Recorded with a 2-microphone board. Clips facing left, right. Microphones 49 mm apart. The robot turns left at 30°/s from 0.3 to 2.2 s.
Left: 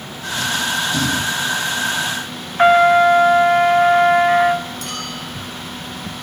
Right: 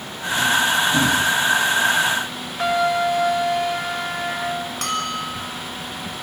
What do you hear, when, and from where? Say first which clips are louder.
2.6 s a trumpet: left 9 dB; 40° left (ahead or behind), 1.4 m
4.8 s a bell: right 4 dB; 60° right (ahead or behind), 8 m